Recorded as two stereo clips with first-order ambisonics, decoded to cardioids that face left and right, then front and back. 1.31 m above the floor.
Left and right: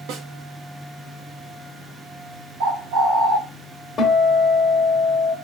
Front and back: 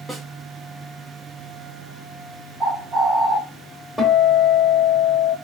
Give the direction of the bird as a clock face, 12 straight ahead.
4 o'clock.